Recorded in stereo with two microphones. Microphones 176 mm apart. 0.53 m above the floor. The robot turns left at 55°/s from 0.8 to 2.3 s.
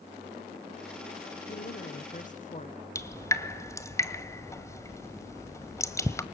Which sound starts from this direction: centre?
Dripping, at 3.0 s.